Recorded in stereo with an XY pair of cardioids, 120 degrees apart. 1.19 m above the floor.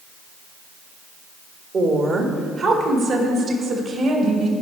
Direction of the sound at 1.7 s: 45° right.